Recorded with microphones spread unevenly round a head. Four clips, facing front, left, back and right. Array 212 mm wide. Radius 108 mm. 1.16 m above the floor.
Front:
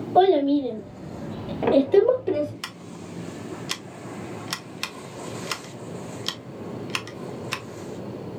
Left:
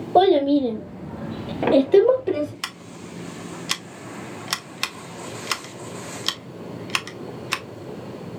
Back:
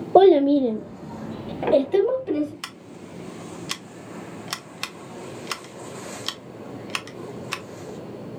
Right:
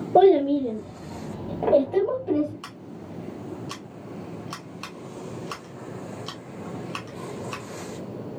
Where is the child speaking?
Straight behind, 1.2 m; by 2.5 s 70° left, 2 m.